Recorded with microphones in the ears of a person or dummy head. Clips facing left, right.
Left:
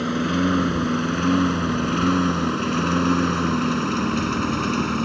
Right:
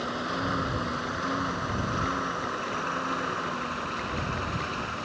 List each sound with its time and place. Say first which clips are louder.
0.0 s a lawn mower: left 11 dB; 40° left (ahead or behind); by 5.0 s 65° left (ahead or behind)